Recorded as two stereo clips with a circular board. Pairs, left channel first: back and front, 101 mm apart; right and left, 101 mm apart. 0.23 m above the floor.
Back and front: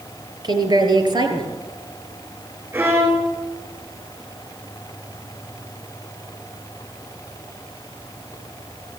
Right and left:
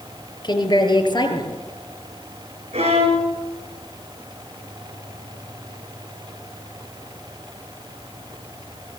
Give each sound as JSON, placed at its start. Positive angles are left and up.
{"t": 0.4, "sound": "a woman speaking", "azimuth_deg": -45, "distance_m": 4.0}
{"t": 2.7, "sound": "a violin", "azimuth_deg": 70, "distance_m": 7.5}